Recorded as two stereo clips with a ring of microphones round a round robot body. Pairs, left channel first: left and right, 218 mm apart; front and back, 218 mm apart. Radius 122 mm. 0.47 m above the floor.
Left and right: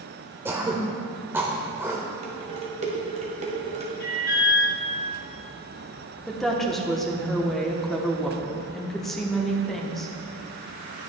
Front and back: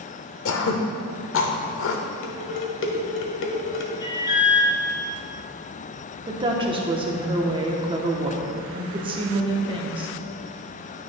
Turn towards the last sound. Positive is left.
turn(degrees=175)